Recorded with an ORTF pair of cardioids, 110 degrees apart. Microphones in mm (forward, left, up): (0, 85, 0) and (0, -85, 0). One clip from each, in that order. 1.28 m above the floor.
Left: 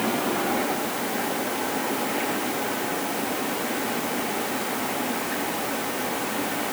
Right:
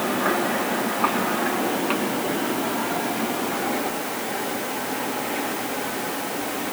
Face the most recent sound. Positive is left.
No sound to turn to.